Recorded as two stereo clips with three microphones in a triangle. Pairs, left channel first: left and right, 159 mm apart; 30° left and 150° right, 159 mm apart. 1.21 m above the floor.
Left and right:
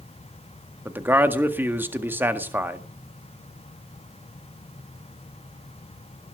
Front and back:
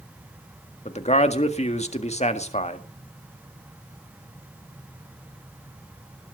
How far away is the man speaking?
About 1.7 m.